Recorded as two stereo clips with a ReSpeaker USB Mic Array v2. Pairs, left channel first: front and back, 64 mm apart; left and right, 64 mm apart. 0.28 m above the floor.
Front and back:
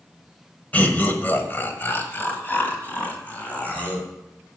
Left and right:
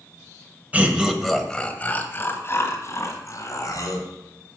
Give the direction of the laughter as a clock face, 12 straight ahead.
1 o'clock.